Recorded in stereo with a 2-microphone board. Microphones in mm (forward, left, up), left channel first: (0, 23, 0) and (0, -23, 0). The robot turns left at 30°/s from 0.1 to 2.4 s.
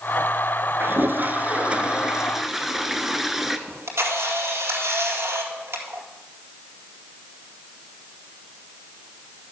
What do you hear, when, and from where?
0.8 s a toilet flushing: 125° right, 0.8 m; by 3.6 s 175° right, 0.8 m
3.7 s a camera shutter: 80° right, 2 m